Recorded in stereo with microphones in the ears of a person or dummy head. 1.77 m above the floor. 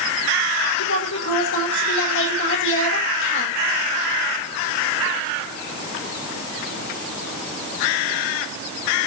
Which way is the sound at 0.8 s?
70° left (ahead or behind).